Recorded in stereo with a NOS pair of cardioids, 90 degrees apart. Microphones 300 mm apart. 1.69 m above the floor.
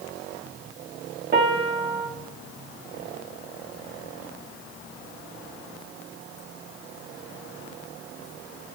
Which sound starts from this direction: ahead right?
A piano, at 1.3 s.